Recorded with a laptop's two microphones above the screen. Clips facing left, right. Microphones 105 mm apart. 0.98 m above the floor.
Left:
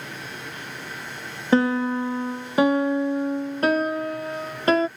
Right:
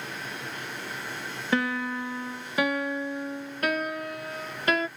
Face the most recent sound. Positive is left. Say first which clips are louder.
# left 8 dB
turn(degrees=30)  # may be behind; listen again after turning